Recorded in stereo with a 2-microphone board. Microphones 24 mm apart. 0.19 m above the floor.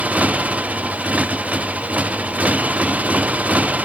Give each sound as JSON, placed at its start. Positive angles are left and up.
{"t": 0.0, "sound": "a motorcycle", "side_deg": -75}